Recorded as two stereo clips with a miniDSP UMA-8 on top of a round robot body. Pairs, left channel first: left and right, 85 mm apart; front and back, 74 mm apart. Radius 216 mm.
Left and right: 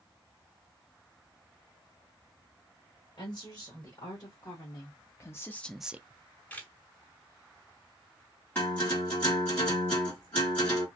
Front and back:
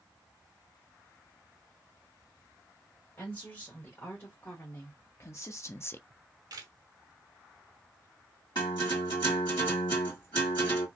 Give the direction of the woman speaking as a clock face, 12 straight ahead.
10 o'clock.